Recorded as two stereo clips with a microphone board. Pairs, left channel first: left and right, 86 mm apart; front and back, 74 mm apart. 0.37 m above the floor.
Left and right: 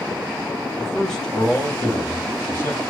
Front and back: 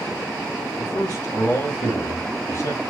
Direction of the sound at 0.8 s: Straight ahead.